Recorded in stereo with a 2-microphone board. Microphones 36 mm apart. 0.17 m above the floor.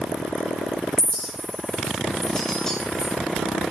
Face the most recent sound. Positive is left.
turn(degrees=15)  # may be behind; listen again after turning